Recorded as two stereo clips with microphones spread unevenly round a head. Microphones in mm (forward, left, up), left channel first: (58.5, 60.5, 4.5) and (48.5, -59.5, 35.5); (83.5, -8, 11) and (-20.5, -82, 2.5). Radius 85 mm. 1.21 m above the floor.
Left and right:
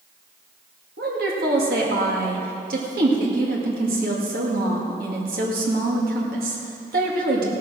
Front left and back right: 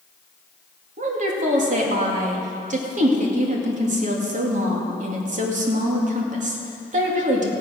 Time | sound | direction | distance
1.0 | a woman speaking | 125° right | 2.5 m